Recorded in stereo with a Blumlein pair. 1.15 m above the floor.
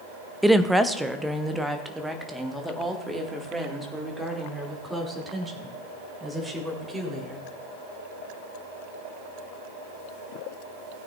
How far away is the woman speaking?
About 0.7 m.